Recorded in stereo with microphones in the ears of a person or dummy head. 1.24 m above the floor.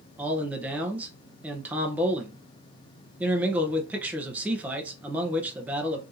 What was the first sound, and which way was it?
A man speaking, 5° right (ahead or behind).